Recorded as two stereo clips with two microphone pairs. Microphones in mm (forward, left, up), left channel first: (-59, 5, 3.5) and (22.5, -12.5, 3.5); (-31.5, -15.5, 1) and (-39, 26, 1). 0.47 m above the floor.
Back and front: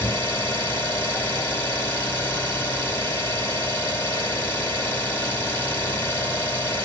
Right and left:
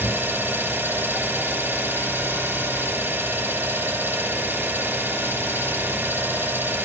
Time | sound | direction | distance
0.0 | an engine running | 105° left | 3 m